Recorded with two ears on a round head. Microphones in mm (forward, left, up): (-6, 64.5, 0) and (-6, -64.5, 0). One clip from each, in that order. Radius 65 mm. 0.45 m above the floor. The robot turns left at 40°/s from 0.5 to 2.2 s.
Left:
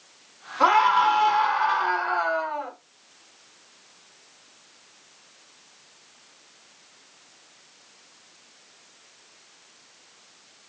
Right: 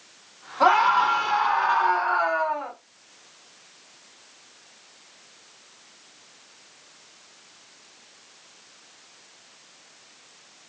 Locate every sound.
0.6 s a scream: 105° left, 1.6 m; by 2.7 s 45° left, 1.6 m